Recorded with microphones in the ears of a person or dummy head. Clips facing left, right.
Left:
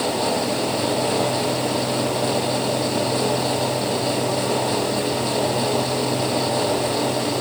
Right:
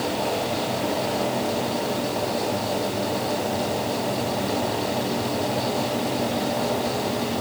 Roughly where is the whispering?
I don't hear whispering.